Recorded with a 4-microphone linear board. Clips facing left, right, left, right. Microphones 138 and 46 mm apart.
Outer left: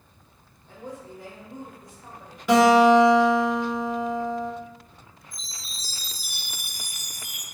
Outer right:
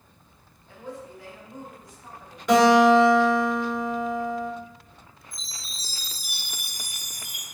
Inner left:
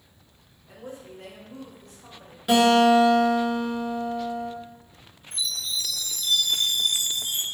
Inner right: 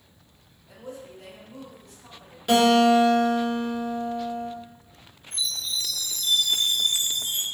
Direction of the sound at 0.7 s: 40° left (ahead or behind).